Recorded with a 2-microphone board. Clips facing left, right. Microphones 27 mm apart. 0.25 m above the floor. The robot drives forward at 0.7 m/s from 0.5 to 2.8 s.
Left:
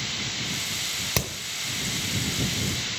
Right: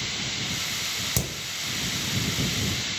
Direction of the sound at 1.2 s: 40° left (ahead or behind).